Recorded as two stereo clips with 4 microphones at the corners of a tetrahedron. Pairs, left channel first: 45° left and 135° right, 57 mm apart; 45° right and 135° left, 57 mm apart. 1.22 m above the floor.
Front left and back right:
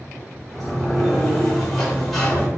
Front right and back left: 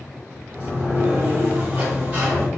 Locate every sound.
0.5 s a sliding door: 130° left, 1.0 m